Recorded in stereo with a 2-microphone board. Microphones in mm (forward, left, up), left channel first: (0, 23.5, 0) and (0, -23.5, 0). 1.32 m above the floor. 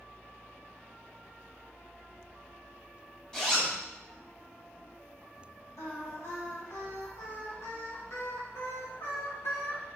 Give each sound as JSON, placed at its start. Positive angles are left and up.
{"t": 3.3, "sound": "a zipper", "side_deg": 15, "distance_m": 1.7}
{"t": 5.8, "sound": "singing", "side_deg": 65, "distance_m": 1.7}